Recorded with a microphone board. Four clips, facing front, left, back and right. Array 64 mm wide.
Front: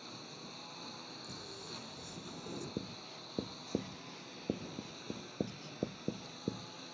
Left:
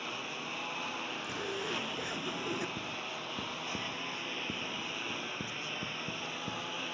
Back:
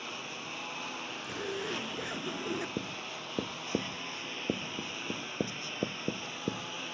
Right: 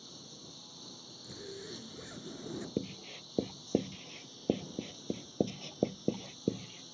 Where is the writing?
105° right.